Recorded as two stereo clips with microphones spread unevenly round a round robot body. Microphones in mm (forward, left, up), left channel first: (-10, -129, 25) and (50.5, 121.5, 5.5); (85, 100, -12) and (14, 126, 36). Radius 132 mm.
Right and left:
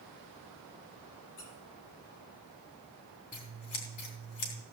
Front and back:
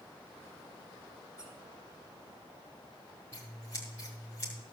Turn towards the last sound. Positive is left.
turn(degrees=-85)